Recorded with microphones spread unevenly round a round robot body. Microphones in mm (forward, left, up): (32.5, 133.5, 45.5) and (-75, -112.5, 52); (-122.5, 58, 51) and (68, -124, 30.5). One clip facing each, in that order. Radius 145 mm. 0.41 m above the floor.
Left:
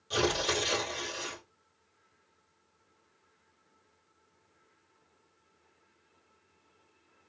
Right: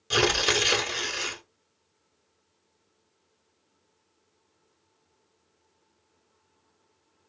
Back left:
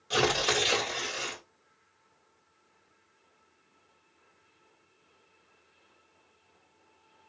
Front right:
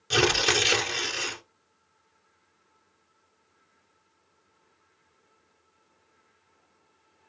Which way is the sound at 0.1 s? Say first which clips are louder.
Right 4 dB, front right 3 dB; 90° right.